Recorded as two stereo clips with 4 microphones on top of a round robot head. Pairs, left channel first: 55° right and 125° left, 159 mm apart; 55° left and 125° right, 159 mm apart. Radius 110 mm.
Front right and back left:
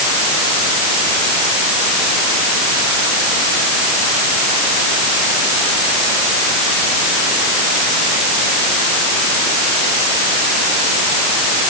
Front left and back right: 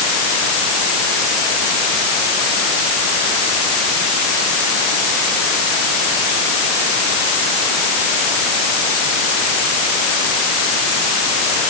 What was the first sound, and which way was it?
Only background noise.